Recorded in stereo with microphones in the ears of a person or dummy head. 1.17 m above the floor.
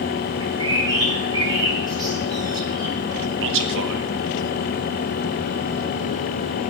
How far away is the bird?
About 6.5 m.